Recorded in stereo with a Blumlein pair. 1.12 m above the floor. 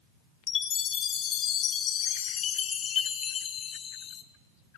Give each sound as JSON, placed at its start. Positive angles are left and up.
{"t": 0.5, "sound": "a chime", "azimuth_deg": 30, "distance_m": 0.7}